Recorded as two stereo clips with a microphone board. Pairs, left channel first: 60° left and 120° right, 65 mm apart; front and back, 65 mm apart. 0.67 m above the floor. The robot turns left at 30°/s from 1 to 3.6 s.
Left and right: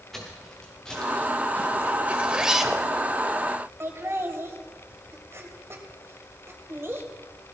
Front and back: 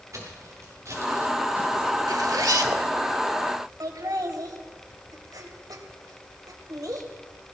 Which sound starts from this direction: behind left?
Footsteps, at 0.1 s.